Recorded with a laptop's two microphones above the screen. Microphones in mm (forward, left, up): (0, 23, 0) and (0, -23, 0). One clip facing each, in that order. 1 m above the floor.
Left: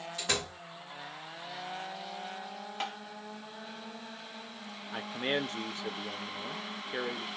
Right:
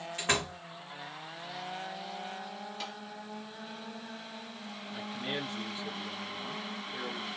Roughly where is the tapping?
Left.